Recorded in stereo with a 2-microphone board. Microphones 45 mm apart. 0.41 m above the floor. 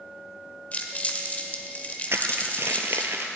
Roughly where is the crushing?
Right.